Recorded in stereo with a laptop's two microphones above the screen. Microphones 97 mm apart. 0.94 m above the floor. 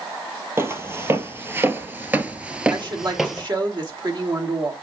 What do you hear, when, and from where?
0.6 s footsteps: 25° right (ahead or behind), 1.4 m; by 3.5 s centre (ahead or behind), 1.2 m
2.7 s a woman speaking: 50° right (ahead or behind), 2.5 m